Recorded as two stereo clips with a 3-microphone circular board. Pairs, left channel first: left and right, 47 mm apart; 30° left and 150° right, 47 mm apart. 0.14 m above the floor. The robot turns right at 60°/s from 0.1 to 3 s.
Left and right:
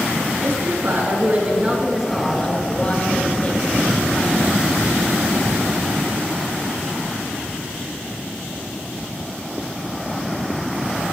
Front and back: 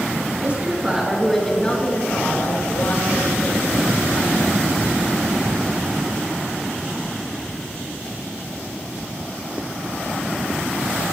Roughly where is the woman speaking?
Right.